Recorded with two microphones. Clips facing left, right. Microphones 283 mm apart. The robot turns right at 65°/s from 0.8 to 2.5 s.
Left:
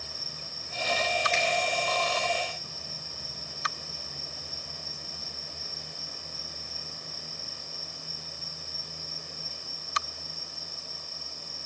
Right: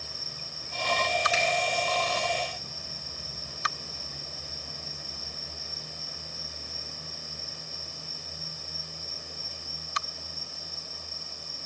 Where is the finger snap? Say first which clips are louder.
Right 1 dB; 5° right (ahead or behind), 3 m; by 1.4 s 15° right (ahead or behind), 3 m.